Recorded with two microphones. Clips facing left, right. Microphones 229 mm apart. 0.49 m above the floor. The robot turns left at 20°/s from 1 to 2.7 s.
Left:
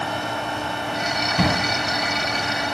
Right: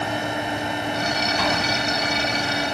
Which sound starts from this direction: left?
A drawer, at 1.4 s.